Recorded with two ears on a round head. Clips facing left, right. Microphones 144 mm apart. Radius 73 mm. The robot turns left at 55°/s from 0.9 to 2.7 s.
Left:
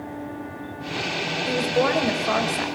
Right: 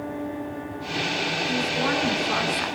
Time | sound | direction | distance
1.5 | a woman speaking | 125° left | 4.5 m